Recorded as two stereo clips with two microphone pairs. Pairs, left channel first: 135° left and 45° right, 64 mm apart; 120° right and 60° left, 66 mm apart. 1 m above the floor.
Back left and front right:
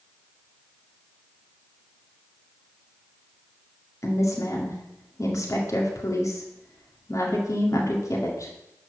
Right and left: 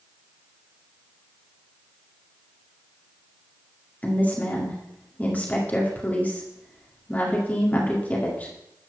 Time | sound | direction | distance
4.0 | a woman speaking | 175° left | 1.9 m